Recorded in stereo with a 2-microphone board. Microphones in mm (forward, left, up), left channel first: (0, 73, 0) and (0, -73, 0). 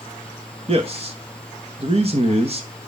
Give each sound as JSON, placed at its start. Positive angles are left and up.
{"t": 0.7, "sound": "a man speaking", "side_deg": -45, "distance_m": 1.1}